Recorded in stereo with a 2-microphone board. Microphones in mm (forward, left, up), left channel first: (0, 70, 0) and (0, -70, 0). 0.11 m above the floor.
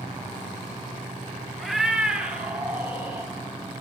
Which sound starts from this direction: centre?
A cat meowing, at 1.6 s.